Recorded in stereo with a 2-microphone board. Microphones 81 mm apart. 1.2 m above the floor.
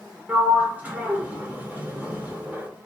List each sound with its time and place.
0.3 s a sliding door: 20° right (ahead or behind), 0.9 m